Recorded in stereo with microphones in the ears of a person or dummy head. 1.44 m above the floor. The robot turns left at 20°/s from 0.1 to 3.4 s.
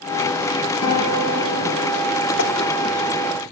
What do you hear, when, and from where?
0.8 s a guitar: 85° left, 3 m; by 2.1 s 65° left (ahead or behind), 3 m
2.4 s tapping: 80° left, 1.7 m